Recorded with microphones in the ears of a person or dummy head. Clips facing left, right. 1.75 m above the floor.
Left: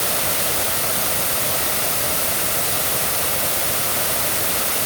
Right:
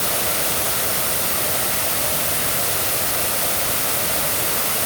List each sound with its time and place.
Only background noise.